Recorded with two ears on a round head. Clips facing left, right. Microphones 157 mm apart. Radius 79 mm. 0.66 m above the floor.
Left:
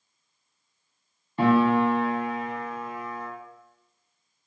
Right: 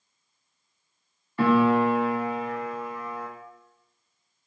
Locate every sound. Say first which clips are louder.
1.4 s a piano: even; 20° left (ahead or behind), 0.6 m